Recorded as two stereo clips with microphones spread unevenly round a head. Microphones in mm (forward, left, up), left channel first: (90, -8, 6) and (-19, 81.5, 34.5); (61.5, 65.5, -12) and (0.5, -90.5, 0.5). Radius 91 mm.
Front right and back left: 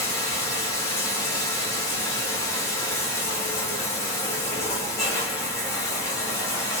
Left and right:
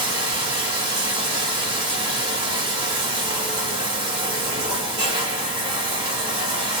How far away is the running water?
About 1.0 m.